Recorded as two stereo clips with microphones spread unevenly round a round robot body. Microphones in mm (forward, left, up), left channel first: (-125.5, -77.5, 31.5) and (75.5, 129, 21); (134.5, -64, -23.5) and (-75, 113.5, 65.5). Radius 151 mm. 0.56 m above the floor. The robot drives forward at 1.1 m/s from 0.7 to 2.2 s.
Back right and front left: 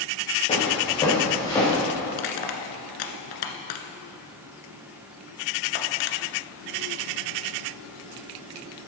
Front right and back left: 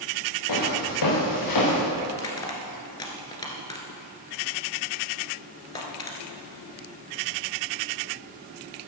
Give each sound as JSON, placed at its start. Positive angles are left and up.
{"t": 0.5, "sound": "footsteps", "azimuth_deg": -60, "distance_m": 5.5}
{"t": 2.1, "sound": "crushing", "azimuth_deg": -120, "distance_m": 1.4}